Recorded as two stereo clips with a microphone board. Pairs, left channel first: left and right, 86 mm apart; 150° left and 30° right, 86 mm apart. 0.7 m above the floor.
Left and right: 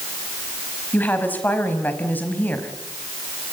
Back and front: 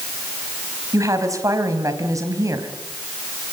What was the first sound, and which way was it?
A woman speaking, 20° left.